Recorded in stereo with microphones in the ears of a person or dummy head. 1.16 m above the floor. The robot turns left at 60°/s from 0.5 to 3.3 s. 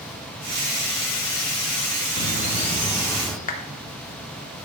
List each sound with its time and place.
2.2 s a bird: 70° left, 0.8 m; by 3.4 s straight ahead, 0.8 m
3.5 s a clap: 40° left (ahead or behind), 1.0 m